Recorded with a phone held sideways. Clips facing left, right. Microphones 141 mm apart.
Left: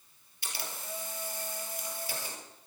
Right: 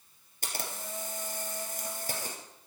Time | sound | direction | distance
0.4 | a camera shutter | 45° right (ahead or behind) | 3.5 m